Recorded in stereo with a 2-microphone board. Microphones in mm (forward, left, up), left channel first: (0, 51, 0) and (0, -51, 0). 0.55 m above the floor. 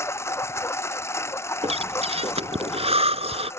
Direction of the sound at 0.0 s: 25° left (ahead or behind).